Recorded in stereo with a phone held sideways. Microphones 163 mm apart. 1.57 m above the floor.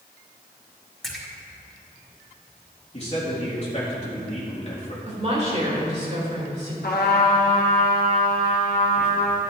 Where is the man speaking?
40° left (ahead or behind), 2.5 m.